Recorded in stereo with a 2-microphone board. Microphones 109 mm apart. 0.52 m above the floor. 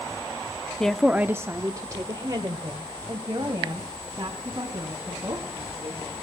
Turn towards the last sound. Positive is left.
turn(degrees=-35)  # may be behind; listen again after turning